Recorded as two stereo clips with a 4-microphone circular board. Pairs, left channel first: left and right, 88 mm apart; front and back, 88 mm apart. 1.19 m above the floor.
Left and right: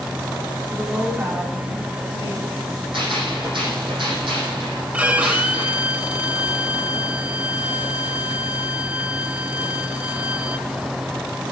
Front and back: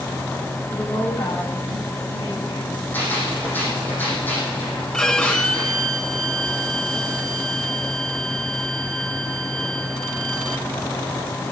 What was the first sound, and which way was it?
A woman speaking, 35° right.